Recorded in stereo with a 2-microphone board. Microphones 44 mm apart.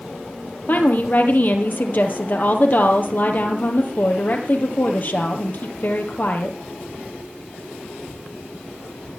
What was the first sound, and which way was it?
A woman speaking, 45° left (ahead or behind).